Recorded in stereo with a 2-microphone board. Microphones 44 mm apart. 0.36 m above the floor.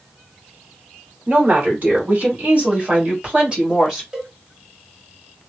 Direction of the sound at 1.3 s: 50° right (ahead or behind).